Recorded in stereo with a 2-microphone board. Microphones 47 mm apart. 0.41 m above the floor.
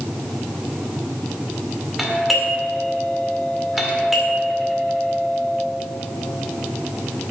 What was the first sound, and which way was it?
A doorbell, 5° right (ahead or behind).